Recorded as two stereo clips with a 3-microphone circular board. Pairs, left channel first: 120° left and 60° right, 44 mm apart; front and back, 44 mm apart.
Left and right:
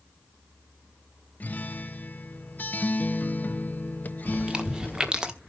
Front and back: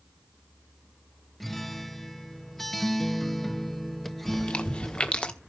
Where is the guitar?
85° left, 0.6 m.